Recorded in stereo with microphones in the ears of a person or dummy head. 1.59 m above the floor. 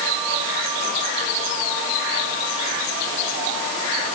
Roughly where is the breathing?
No breathing in this recording.